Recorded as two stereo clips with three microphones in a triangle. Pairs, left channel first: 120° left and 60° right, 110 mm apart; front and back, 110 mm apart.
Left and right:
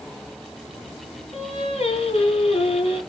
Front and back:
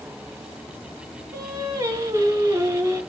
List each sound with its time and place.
1.3 s singing: 120° left, 1.9 m